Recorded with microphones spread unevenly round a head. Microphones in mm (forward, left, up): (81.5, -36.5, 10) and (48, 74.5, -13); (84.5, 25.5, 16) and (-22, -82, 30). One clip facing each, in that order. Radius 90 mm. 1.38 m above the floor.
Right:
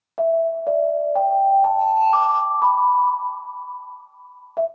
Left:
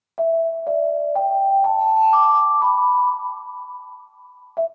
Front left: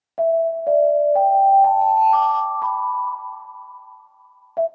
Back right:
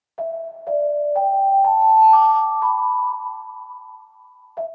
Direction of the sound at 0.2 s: 10° left.